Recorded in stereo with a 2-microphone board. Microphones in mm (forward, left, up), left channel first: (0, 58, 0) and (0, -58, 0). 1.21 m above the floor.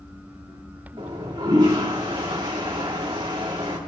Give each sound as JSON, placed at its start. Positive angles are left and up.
{"t": 1.0, "sound": "a toilet flushing", "side_deg": -45, "distance_m": 2.5}